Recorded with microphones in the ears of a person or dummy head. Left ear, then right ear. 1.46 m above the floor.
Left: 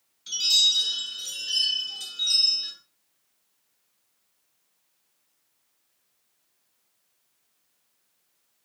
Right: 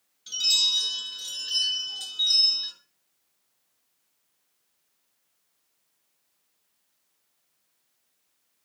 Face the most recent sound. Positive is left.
turn(degrees=0)  # may be behind; listen again after turning